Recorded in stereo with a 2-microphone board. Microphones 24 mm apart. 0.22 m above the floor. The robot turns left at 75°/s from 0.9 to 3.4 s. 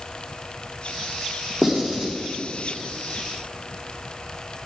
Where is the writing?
30° right (ahead or behind), 4 m; by 2.1 s 65° right (ahead or behind), 4 m.